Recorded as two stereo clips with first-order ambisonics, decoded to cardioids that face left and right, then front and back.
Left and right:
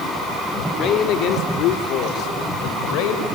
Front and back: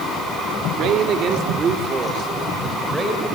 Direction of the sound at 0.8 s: 140° left.